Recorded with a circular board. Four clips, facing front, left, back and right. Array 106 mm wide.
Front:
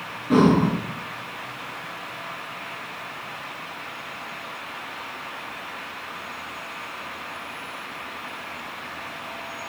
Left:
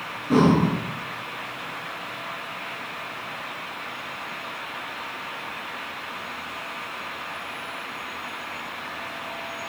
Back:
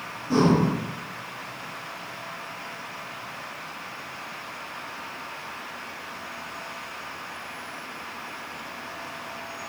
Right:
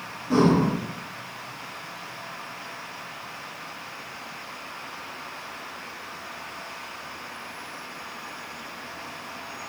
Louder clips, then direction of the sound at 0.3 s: Left 1 dB, front 3 dB; 25° left.